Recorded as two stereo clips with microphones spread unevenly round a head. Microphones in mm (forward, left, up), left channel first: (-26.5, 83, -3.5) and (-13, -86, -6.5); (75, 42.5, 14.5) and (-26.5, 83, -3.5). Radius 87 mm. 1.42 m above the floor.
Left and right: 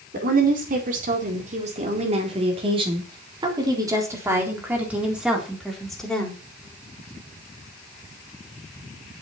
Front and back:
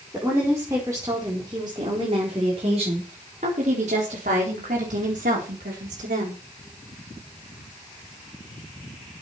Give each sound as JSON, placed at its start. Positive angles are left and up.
{"t": 0.1, "sound": "a woman speaking", "azimuth_deg": -125, "distance_m": 4.5}